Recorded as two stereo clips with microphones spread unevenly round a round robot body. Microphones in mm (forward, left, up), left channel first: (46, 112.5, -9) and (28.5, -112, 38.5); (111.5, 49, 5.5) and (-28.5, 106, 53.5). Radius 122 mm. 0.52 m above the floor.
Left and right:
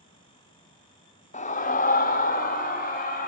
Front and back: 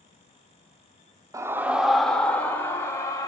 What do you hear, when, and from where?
1.3 s a scream: 75° left, 1.2 m; by 3.3 s 40° left, 2.5 m